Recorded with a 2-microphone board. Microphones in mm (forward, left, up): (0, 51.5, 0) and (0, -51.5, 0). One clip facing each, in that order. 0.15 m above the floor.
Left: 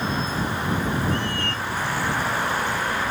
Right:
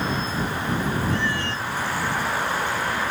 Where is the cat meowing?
55° left (ahead or behind).